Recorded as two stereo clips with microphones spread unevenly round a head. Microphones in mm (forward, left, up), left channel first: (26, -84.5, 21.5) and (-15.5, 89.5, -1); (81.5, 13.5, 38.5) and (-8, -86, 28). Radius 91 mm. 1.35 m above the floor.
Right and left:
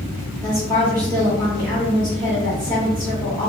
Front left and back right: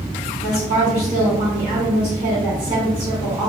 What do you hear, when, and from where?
0.4 s a woman speaking: 160° right, 1.6 m